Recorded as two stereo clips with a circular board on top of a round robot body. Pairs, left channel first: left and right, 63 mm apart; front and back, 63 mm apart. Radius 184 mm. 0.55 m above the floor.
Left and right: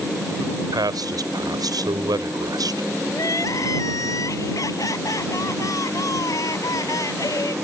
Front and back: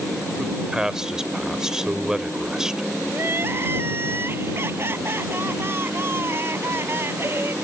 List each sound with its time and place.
0.4 s a man speaking: 100° right
3.1 s crying: 125° left